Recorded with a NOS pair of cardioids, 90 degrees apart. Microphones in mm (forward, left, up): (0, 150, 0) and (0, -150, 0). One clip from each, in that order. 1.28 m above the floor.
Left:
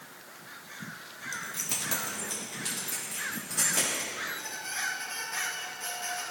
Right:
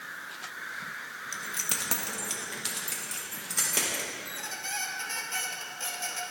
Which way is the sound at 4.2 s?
55° right.